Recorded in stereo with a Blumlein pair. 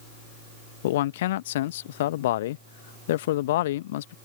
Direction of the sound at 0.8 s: 55° left.